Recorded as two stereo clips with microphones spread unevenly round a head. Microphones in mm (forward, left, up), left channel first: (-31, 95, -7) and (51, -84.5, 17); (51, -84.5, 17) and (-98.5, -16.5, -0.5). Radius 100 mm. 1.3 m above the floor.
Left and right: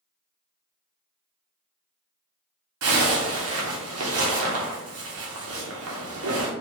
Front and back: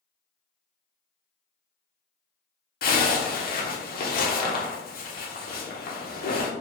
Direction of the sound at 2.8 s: 55° right.